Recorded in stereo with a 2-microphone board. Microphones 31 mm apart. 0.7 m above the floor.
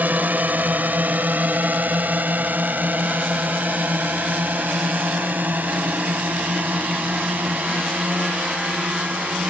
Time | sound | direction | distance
0.0 | a drone | 65° right (ahead or behind) | ?